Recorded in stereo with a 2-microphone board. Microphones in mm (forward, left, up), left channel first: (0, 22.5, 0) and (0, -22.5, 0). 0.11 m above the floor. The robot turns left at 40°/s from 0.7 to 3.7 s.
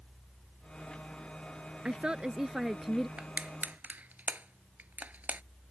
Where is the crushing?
25° right (ahead or behind); by 5.4 s 40° right (ahead or behind).